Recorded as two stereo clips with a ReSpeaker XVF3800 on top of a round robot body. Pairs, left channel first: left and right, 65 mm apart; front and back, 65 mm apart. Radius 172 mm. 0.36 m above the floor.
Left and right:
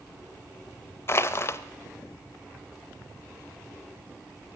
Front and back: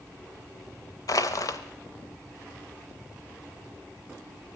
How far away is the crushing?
About 0.6 m.